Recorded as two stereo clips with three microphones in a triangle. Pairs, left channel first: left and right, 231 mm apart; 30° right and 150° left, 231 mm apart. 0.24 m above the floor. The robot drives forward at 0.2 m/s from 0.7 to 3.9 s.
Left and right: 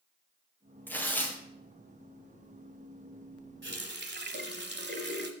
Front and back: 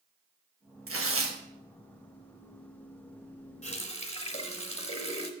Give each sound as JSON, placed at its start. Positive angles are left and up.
{"t": 0.9, "sound": "tearing paper", "azimuth_deg": 170, "distance_m": 1.5}
{"t": 3.6, "sound": "a running tap", "azimuth_deg": -80, "distance_m": 1.1}